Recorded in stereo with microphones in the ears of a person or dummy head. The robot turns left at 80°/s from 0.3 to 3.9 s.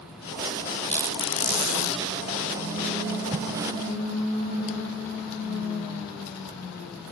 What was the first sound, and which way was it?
A squeak, straight behind.